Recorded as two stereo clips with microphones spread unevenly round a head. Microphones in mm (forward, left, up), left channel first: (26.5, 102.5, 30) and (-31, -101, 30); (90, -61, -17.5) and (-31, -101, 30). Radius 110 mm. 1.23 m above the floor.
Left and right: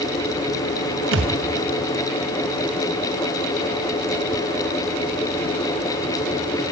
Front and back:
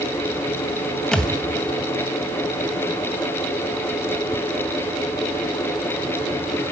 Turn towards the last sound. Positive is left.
turn(degrees=-75)